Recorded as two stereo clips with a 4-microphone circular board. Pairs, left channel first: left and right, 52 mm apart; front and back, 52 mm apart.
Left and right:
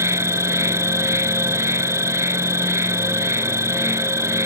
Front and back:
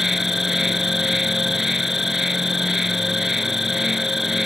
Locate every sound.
0.0 s an insect: 95° right